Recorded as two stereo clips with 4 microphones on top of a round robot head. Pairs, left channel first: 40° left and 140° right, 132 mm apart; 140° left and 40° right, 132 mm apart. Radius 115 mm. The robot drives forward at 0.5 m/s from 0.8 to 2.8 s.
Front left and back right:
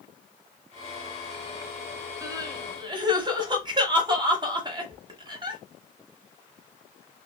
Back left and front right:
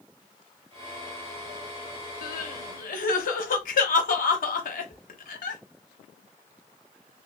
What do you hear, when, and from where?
2.2 s crying: 150° left, 0.8 m; by 5.6 s 160° left, 1.1 m